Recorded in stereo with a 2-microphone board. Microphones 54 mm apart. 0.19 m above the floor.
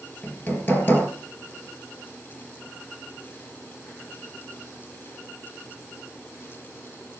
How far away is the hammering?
About 3.5 m.